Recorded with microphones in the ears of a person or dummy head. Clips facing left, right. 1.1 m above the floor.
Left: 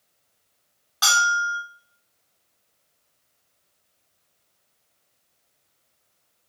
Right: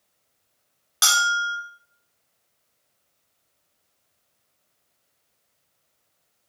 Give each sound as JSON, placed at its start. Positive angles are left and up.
{"t": 1.0, "sound": "a bell", "side_deg": -30, "distance_m": 0.7}